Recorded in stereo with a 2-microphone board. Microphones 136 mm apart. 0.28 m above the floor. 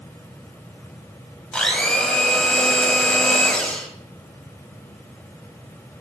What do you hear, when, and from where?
1.5 s a blender: 10° left (ahead or behind), 1.3 m